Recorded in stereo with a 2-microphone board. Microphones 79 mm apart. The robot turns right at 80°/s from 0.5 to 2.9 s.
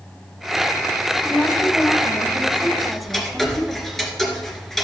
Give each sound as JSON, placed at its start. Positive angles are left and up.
{"t": 1.2, "sound": "a woman speaking", "side_deg": 20, "distance_m": 1.0}
{"t": 2.8, "sound": "ticking", "side_deg": -5, "distance_m": 1.8}